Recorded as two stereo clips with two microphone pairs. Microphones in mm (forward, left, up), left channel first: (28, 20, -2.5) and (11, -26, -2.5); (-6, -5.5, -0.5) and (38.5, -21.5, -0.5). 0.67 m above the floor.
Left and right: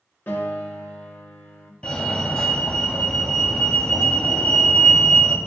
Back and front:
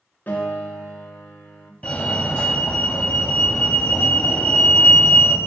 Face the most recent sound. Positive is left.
turn(degrees=120)